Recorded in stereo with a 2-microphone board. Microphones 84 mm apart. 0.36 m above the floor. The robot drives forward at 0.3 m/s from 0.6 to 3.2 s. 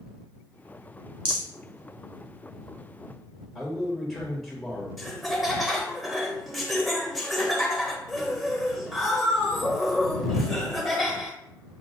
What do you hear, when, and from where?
1.2 s a rattle: 75° right (ahead or behind), 1.4 m
3.5 s a man speaking: 5° left (ahead or behind), 1.5 m
5.0 s laughter: centre (ahead or behind), 1.0 m